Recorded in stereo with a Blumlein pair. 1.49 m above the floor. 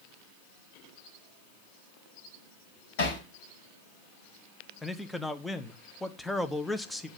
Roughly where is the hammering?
Ahead left.